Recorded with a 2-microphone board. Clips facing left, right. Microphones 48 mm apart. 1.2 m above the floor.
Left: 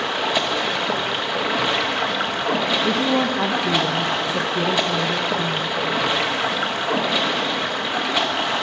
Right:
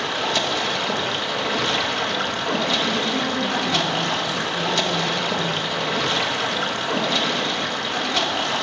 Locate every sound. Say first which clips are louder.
0.0 s running water: left 1 dB; 15° left (ahead or behind), 1.0 m
2.9 s a woman speaking: left 3 dB; 70° left (ahead or behind), 1.0 m